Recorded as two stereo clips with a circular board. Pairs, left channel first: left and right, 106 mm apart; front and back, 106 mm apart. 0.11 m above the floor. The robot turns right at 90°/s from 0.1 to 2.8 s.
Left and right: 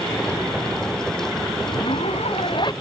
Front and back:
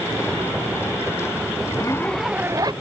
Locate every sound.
1.7 s a zipper: 40° left; by 2.7 s 135° left